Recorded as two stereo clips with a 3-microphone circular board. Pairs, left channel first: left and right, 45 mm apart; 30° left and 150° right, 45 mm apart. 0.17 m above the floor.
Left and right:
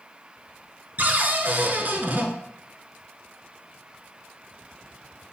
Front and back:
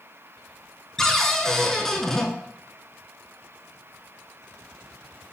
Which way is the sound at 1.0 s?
50° right.